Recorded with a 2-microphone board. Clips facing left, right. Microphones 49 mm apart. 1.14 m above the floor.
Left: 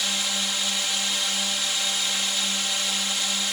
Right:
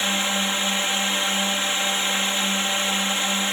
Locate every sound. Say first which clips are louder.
0.0 s a drone: right 5 dB; 30° right (ahead or behind)